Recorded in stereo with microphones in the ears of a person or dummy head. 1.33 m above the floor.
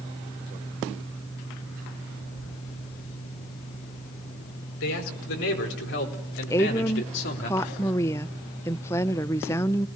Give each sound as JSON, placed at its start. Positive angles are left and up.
{"t": 4.8, "sound": "a man speaking", "side_deg": 75, "distance_m": 5.0}
{"t": 6.5, "sound": "a woman speaking", "side_deg": 15, "distance_m": 0.5}